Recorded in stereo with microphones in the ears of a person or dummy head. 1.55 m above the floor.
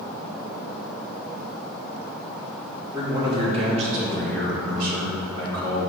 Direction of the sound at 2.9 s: 25° right (ahead or behind).